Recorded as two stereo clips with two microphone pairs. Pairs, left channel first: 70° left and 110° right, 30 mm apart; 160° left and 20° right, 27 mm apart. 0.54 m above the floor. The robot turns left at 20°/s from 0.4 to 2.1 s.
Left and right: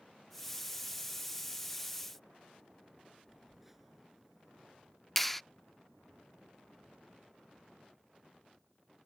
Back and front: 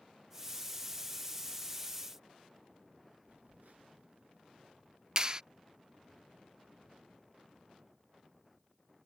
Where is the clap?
Straight ahead.